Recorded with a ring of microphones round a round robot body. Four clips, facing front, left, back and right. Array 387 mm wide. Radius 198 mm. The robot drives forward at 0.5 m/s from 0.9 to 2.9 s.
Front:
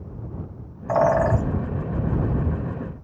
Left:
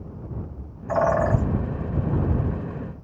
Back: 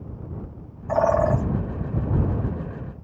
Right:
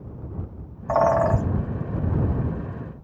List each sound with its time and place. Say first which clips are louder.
0.9 s a bird: right 2 dB, front 1 dB; 55° right, 2.5 m; by 1.4 s 60° right, 2.5 m